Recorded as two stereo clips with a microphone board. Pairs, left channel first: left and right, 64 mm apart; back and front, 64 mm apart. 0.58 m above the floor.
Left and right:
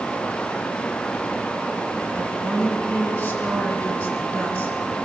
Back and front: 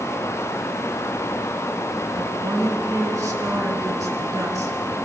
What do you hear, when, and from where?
2.1 s a woman speaking: 30° left, 6.5 m